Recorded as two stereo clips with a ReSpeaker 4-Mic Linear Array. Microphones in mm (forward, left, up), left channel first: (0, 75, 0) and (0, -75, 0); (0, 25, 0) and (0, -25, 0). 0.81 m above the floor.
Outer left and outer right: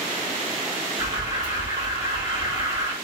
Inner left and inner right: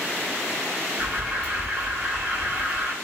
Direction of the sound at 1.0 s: 25° right (ahead or behind).